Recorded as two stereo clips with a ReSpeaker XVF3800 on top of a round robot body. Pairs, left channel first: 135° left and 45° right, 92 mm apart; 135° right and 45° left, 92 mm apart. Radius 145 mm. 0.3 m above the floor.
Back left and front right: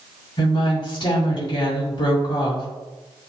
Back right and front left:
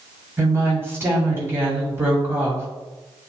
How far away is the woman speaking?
About 3.5 m.